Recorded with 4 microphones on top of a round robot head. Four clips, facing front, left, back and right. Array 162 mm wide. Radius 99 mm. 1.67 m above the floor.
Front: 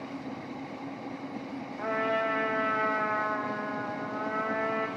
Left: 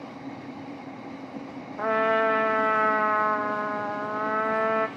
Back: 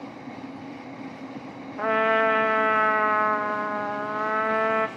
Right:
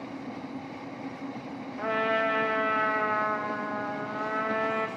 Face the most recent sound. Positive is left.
turn(degrees=140)